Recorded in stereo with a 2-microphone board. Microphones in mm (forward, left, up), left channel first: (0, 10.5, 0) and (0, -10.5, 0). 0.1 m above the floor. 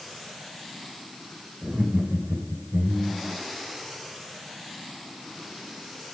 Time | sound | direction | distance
1.6 | laughter | 45° right (ahead or behind) | 5 m